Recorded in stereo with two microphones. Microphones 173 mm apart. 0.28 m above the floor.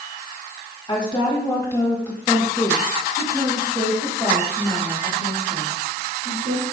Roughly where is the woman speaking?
Left.